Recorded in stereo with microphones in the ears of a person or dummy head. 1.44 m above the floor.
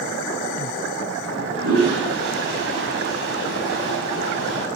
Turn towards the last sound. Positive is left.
turn(degrees=-80)